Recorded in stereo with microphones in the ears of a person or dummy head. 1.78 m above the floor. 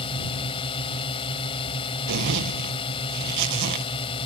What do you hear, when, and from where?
0.0 s a drone: 25° left (ahead or behind)
2.1 s a zipper: 60° right (ahead or behind)